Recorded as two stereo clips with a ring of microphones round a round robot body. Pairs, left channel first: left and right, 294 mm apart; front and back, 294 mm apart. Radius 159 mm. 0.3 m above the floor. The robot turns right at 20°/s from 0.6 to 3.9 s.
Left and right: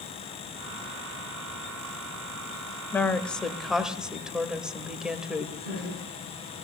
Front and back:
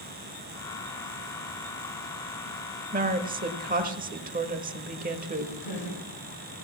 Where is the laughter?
25° left, 7 m.